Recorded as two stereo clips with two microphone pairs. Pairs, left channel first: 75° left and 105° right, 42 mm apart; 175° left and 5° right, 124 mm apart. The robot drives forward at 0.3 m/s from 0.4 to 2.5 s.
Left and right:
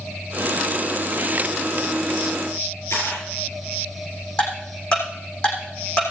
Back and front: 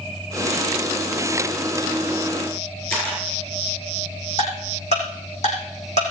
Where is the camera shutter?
100° left, 7.5 m.